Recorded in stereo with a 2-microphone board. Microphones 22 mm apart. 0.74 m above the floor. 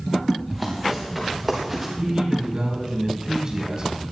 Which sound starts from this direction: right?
A man speaking, at 2.0 s.